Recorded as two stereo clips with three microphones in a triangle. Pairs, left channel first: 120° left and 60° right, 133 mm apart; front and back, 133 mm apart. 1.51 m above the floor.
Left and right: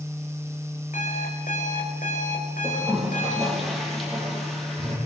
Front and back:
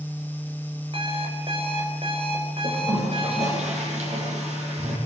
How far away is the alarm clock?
About 4.5 m.